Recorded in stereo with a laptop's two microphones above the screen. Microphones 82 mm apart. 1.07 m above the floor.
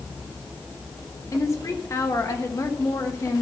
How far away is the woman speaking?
About 1.2 m.